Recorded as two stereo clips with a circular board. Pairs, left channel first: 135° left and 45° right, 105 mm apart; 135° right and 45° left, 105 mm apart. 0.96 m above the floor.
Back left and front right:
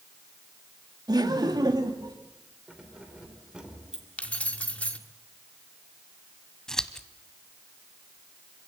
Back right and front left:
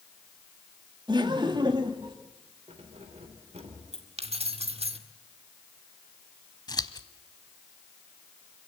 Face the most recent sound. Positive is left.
turn(degrees=-145)